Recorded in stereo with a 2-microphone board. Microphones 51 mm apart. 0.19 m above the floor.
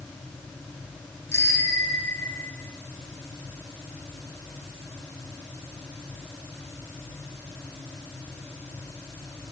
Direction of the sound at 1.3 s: 80° left.